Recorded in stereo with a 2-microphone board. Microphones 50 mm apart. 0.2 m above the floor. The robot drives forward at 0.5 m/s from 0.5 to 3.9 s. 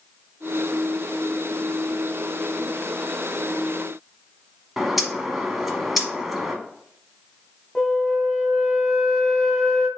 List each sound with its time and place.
4.8 s a bird: 5° right (ahead or behind), 0.9 m
7.8 s a flute: 15° left (ahead or behind), 1.0 m